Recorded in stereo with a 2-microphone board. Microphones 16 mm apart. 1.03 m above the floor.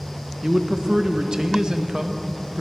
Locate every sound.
0.4 s a man speaking: 50° right (ahead or behind), 0.6 m